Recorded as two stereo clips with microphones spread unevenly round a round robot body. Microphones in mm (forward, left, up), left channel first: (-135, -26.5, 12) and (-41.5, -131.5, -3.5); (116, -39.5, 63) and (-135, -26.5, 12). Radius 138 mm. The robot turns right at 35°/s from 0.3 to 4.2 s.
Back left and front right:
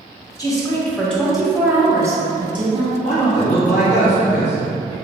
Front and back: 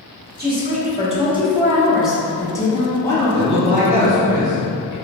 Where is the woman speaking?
165° right, 1.0 m; by 2.9 s 75° right, 1.0 m.